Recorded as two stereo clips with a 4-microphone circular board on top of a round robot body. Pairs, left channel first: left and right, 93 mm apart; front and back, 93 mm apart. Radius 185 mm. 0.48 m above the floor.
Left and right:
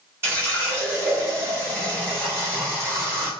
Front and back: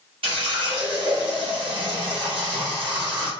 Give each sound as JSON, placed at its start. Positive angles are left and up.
{"t": 0.2, "sound": "a running tap", "azimuth_deg": -155, "distance_m": 1.8}